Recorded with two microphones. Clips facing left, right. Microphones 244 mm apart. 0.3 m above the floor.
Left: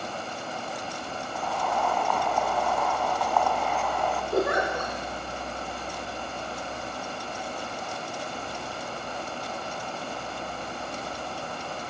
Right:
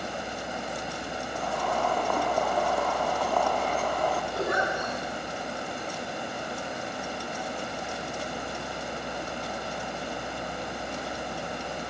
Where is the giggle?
65° left (ahead or behind), 7.5 m.